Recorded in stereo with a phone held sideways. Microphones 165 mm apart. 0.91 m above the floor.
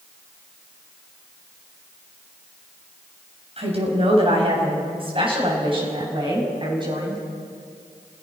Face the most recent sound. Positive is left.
turn(degrees=-25)  # may be behind; listen again after turning